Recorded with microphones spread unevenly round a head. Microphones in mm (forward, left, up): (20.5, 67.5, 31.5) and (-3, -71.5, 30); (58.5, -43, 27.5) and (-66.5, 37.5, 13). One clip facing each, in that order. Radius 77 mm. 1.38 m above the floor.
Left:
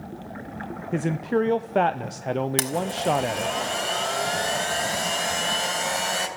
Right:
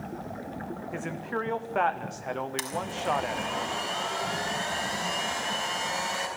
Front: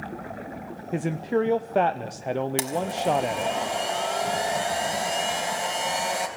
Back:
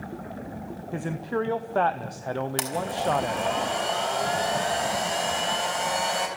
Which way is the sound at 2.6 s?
50° left.